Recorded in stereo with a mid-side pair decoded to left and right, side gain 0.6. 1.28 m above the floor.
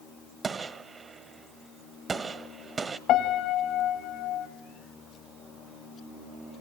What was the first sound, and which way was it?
A gunshot, 30° right.